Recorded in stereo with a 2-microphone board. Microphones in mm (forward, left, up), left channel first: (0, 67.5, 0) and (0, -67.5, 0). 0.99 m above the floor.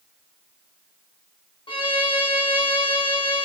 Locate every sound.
1.7 s a violin: 40° left (ahead or behind), 1.1 m